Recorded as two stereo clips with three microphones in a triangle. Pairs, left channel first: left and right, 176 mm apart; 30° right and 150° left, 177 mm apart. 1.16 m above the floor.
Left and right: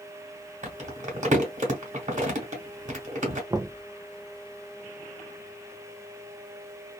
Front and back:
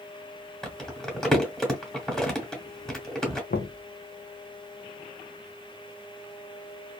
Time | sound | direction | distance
0.6 | crumpling | 115° right | 1.2 m
3.5 | knocking | 20° right | 0.5 m